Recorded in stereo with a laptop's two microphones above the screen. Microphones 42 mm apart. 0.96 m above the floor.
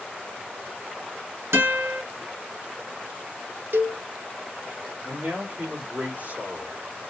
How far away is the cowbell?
About 0.6 m.